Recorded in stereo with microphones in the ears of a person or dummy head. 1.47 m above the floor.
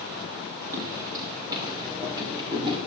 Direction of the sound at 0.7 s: 15° right (ahead or behind).